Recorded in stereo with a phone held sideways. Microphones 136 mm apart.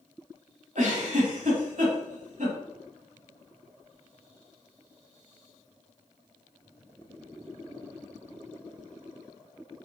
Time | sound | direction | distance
0.8 | a giggle | 70° right (ahead or behind) | 1.4 m